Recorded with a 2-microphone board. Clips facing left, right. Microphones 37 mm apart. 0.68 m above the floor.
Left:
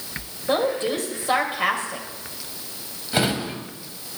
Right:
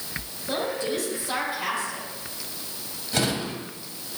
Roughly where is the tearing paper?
No tearing paper in this recording.